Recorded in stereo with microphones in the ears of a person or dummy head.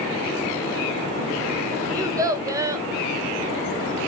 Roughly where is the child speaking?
Centre.